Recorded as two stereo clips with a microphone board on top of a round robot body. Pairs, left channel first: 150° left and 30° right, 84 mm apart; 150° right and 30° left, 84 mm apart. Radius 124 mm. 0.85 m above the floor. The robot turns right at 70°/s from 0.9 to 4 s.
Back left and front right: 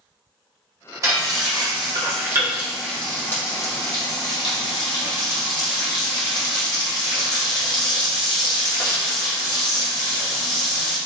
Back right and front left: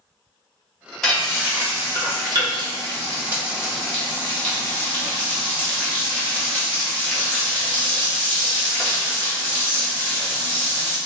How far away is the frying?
About 1.3 m.